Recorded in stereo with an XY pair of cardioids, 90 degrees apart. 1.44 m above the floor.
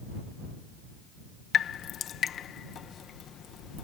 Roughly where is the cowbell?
I don't hear a cowbell.